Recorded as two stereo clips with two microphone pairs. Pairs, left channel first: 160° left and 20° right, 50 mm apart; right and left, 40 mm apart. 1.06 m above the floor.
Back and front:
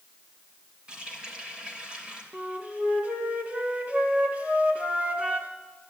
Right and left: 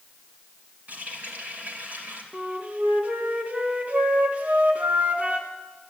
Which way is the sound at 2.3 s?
40° left.